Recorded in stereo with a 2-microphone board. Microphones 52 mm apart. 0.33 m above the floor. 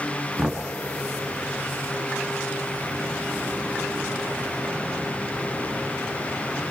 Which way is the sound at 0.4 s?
15° right (ahead or behind).